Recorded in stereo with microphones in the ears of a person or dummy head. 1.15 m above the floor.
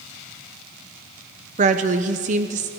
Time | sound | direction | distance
1.6 | a woman speaking | 35° right (ahead or behind) | 0.6 m